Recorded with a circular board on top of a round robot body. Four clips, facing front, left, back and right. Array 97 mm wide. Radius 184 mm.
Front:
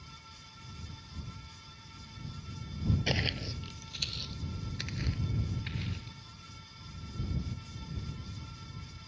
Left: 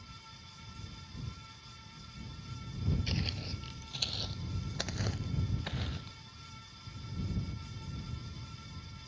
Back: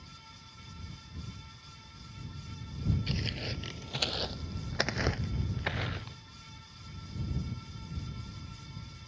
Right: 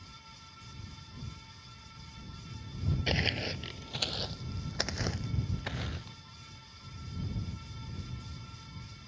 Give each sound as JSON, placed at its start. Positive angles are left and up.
{"t": 3.1, "sound": "footsteps", "azimuth_deg": -50}